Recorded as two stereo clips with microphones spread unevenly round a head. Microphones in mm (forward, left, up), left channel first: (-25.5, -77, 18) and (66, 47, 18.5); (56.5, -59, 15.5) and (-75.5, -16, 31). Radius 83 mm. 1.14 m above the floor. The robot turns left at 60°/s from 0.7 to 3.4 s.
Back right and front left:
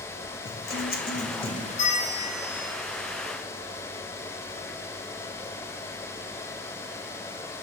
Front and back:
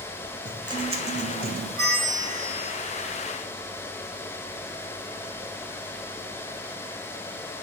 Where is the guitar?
140° right, 1.3 m; by 1.7 s 165° left, 1.3 m.